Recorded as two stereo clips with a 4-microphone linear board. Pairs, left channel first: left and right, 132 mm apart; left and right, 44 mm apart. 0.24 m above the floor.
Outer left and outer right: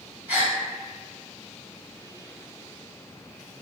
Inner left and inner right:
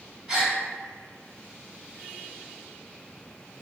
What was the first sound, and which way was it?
A gasp, 15° right (ahead or behind).